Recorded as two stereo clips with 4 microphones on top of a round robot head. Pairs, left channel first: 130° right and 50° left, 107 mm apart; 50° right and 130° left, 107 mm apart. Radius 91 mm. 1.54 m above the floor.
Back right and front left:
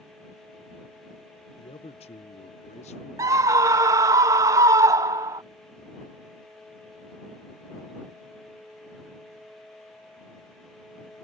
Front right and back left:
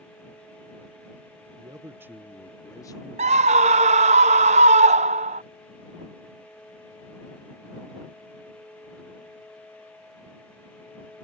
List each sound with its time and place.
1.6 s a man speaking: 175° right; by 4.2 s 65° right
3.2 s a scream: 115° left